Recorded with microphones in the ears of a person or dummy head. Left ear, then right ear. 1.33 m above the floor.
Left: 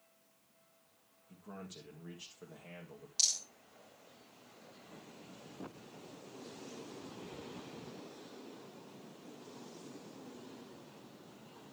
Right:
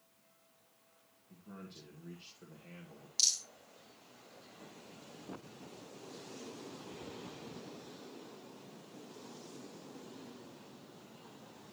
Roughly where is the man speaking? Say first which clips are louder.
Left 3 dB; left.